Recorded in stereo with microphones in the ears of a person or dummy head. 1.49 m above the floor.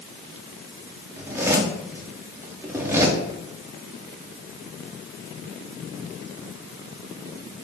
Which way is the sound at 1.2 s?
15° right (ahead or behind).